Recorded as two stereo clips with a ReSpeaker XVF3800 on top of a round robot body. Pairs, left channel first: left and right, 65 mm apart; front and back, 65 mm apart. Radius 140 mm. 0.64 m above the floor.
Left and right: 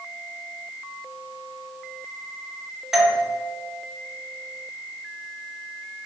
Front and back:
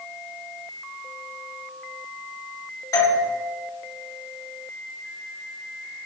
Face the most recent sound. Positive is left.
turn(degrees=-10)